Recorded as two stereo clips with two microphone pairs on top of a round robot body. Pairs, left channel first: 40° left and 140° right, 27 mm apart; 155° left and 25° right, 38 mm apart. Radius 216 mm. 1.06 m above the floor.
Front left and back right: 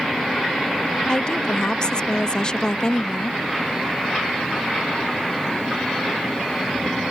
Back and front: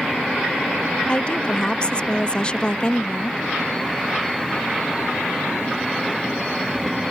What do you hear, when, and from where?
1.1 s a woman speaking: 95° left